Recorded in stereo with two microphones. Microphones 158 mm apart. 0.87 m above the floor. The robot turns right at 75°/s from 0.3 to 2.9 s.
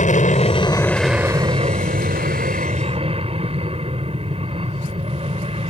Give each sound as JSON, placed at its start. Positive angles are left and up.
{"t": 0.0, "sound": "an aircraft", "azimuth_deg": 125}